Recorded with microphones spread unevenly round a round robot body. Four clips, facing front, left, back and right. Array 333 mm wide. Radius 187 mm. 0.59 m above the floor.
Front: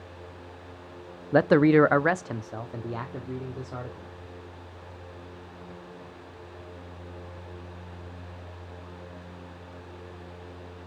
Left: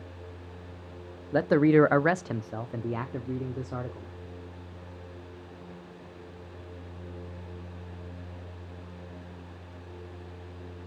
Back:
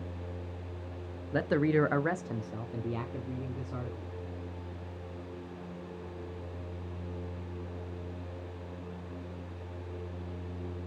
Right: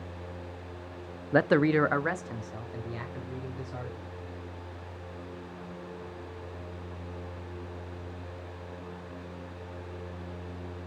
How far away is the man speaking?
About 0.7 m.